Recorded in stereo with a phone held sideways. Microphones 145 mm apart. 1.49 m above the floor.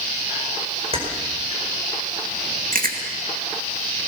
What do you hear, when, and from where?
0.9 s keys jangling: 40° right (ahead or behind), 5 m
2.7 s chewing: 70° right (ahead or behind), 2 m